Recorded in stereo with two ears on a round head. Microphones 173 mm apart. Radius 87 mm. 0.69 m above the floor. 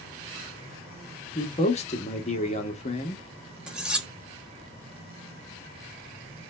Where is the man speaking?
35° left (ahead or behind), 0.8 m.